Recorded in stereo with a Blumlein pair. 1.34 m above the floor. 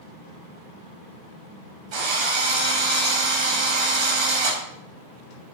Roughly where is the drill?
Ahead right.